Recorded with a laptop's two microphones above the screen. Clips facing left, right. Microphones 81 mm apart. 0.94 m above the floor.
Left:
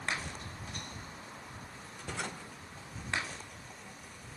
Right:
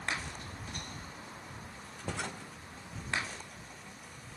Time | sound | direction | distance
2.0 | knocking | 35° right (ahead or behind) | ?